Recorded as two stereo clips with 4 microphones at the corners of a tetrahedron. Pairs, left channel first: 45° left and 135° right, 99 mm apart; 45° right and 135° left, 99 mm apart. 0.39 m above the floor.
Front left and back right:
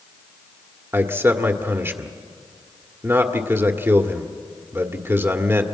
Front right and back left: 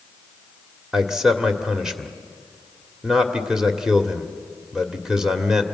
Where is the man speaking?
150° right, 1.4 m.